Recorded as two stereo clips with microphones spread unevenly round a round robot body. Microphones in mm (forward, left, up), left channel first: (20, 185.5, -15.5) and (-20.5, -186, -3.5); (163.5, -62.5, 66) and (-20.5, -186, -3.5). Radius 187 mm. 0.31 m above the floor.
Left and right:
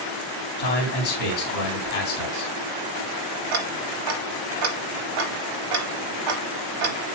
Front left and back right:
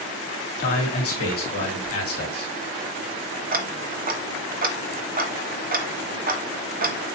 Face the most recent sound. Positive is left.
turn(degrees=-115)